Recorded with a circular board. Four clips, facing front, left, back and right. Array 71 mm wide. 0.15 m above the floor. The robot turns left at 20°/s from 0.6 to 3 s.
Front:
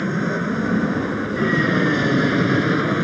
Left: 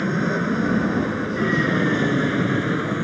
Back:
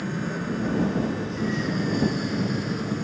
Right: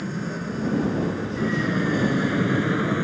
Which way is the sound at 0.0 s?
45° left.